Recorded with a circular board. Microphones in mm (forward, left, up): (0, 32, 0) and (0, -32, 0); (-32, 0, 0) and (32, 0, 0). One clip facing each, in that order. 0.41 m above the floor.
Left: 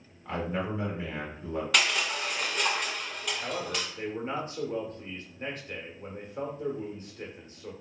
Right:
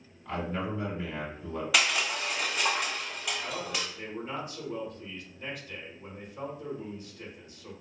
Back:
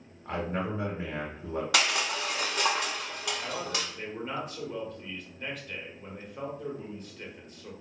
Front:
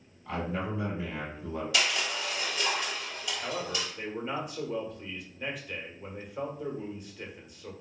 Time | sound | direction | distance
0.2 | a man speaking | 160° left | 1.8 m
1.7 | crushing | 175° right | 0.8 m
3.4 | a man speaking | 80° left | 1.0 m